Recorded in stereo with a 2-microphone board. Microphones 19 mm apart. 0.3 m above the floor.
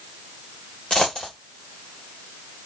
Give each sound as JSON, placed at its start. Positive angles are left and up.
{"t": 0.9, "sound": "a dropped coin", "side_deg": 55, "distance_m": 1.5}